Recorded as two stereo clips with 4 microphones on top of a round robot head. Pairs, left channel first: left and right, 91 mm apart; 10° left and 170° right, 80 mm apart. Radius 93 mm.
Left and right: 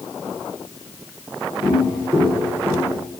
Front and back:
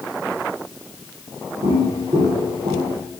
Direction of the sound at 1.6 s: 155° right.